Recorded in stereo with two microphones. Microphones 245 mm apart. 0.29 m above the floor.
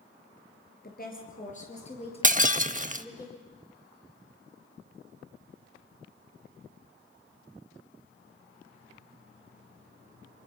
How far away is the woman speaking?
About 6 m.